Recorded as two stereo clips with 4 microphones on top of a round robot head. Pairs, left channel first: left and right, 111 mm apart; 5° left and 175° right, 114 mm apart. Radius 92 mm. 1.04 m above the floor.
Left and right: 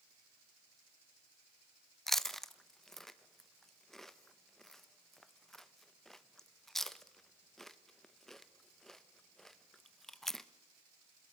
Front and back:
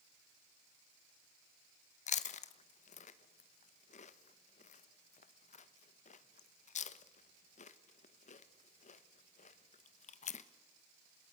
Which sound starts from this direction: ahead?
Chewing, at 2.1 s.